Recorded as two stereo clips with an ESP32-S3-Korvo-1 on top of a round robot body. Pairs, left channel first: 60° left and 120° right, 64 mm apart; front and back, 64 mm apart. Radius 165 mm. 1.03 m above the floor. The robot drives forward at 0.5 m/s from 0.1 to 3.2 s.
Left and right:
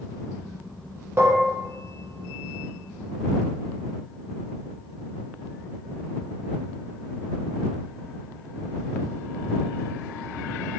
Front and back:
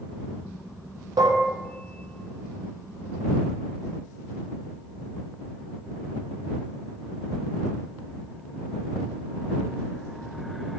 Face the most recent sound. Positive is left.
turn(degrees=180)